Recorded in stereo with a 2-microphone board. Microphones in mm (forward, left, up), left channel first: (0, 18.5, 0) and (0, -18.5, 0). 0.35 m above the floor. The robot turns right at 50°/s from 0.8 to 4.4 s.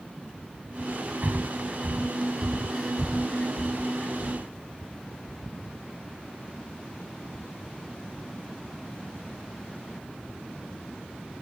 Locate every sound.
1.2 s breathing: 65° right (ahead or behind); by 4.5 s 65° left (ahead or behind)